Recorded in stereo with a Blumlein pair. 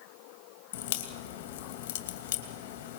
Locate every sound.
0.7 s a crack: 50° left, 2.5 m